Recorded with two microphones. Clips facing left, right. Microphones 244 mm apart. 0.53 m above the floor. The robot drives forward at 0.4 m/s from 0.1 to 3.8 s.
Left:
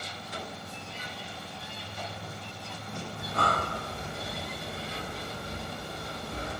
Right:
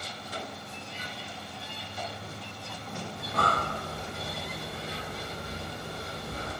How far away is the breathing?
About 1.2 m.